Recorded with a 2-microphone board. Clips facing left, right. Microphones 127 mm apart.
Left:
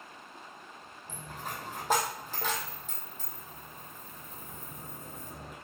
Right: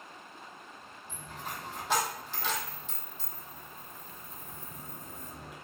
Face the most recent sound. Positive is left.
turn(degrees=45)  # may be behind; listen again after turning